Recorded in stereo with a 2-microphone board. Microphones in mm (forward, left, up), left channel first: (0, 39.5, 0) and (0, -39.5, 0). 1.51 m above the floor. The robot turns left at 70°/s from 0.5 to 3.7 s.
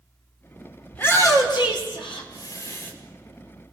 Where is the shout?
160° left, 5 m; by 2.9 s 20° left, 5 m.